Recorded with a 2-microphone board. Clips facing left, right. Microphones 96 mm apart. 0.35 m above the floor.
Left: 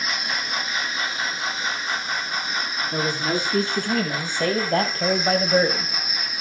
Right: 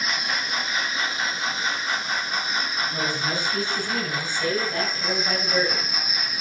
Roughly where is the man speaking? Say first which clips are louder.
Left 6 dB; left.